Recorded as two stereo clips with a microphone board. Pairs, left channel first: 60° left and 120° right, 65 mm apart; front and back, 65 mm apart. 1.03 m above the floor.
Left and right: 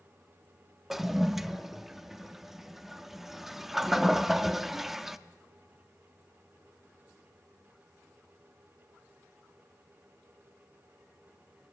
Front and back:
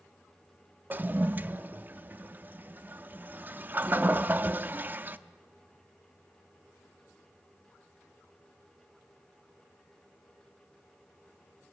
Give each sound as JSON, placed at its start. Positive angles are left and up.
{"t": 0.9, "sound": "a toilet flushing", "azimuth_deg": 160, "distance_m": 0.5}